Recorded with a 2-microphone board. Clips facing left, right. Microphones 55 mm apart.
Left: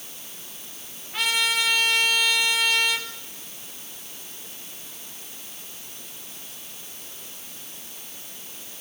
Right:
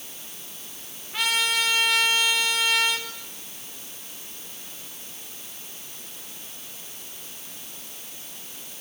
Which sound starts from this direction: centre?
A trumpet, at 1.1 s.